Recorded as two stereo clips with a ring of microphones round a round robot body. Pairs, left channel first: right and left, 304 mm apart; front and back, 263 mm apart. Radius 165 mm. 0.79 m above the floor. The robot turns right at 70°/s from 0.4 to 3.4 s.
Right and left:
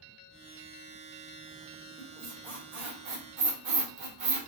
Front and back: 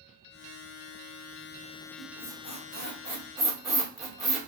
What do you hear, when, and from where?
2.0 s a squeak: 10° right, 1.3 m; by 4.5 s 90° left, 1.3 m